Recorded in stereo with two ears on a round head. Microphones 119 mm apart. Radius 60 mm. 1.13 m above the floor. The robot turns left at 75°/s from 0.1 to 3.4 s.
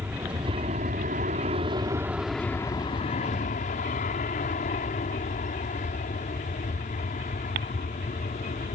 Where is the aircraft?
15° right; by 8.8 s 95° left.